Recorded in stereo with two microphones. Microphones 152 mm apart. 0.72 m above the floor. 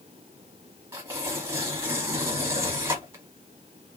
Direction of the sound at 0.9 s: 20° right (ahead or behind).